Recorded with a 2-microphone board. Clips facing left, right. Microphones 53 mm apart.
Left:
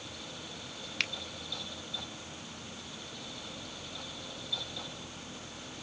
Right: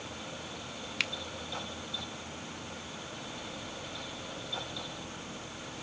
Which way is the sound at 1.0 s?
Centre (ahead or behind).